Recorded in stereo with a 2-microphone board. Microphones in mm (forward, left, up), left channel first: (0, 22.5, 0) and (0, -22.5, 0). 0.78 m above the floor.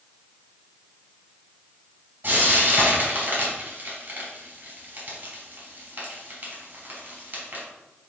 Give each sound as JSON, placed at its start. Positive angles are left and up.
{"t": 2.2, "sound": "frying", "side_deg": -40, "distance_m": 3.5}